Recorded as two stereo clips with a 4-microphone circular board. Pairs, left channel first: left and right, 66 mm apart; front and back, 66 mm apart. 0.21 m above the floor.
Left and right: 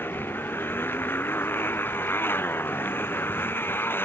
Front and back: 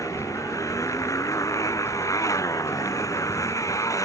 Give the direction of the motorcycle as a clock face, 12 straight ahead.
11 o'clock.